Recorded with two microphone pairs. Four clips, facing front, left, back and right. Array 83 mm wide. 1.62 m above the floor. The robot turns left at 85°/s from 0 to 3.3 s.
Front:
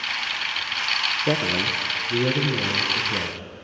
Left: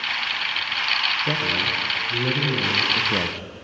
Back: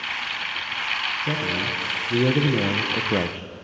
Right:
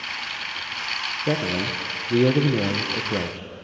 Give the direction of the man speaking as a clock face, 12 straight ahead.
1 o'clock.